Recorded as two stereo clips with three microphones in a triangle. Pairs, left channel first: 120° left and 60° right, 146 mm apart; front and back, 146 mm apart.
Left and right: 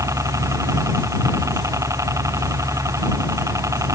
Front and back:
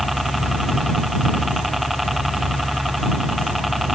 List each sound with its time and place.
0.0 s a helicopter: 90° right